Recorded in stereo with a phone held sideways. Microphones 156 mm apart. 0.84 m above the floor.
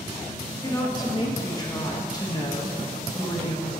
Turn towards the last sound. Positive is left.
turn(degrees=25)  # may be behind; listen again after turning